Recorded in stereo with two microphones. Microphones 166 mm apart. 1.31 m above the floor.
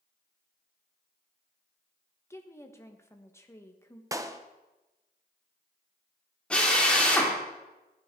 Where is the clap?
20° right (ahead or behind), 0.8 m.